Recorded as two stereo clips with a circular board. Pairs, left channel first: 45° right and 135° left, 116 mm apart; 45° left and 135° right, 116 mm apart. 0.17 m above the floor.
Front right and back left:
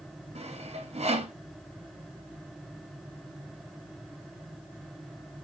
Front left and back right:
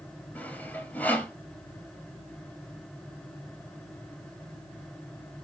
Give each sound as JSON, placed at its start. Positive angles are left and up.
{"t": 0.3, "sound": "sawing", "azimuth_deg": 120, "distance_m": 3.0}